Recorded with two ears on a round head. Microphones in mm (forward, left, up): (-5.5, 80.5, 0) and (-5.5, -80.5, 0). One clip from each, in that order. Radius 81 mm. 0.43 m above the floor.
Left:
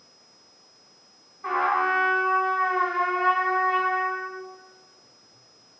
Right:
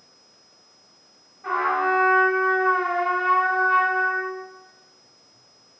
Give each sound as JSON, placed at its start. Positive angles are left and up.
{"t": 1.4, "sound": "a trumpet", "side_deg": 40, "distance_m": 1.7}